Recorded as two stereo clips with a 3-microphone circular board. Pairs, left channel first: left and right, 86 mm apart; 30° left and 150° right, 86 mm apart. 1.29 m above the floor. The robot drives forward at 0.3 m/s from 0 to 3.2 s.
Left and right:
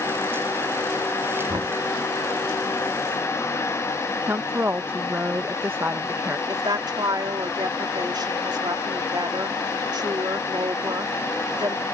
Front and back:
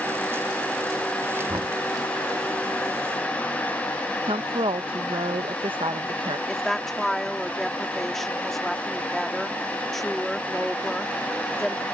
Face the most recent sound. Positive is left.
turn(degrees=-55)